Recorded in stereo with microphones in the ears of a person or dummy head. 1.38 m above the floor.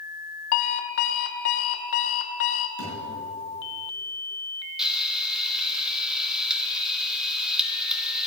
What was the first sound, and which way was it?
An alarm clock, 50° left (ahead or behind).